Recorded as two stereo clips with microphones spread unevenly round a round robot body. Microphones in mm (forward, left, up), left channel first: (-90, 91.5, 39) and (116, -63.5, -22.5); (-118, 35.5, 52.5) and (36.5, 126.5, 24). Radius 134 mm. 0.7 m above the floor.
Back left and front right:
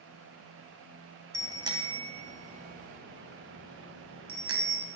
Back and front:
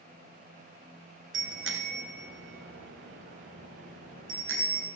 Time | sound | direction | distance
1.3 | a bicycle bell | 40° left | 3 m